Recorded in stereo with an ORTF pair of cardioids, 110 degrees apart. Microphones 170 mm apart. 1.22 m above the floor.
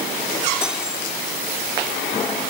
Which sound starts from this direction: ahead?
Cutlery clinking, at 0.6 s.